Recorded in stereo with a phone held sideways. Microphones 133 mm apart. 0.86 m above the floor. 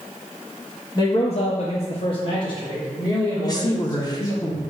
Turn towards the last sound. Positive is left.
turn(degrees=30)  # may be behind; listen again after turning